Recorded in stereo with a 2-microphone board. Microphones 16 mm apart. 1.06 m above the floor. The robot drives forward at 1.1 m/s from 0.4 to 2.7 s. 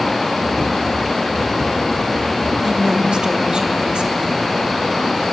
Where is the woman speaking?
60° right (ahead or behind), 2 m.